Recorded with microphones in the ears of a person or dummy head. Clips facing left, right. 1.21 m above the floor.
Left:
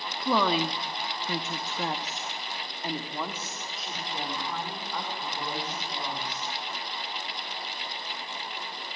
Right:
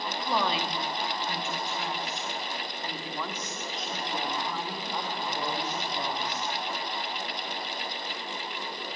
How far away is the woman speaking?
About 2.5 m.